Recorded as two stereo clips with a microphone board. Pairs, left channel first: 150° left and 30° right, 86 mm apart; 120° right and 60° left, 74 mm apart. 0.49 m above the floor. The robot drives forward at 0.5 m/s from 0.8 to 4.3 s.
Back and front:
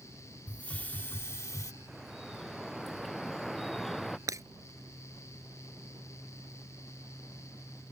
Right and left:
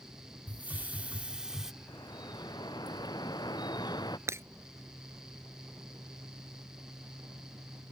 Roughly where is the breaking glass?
Ahead.